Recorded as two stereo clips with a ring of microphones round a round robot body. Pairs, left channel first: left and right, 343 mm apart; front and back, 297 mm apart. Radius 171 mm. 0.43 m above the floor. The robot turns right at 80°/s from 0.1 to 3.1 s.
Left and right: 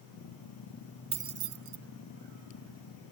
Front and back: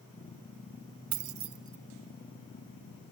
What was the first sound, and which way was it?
Keys jangling, 165° right.